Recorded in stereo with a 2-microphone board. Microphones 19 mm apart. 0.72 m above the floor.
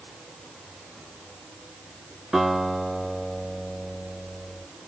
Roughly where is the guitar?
Centre.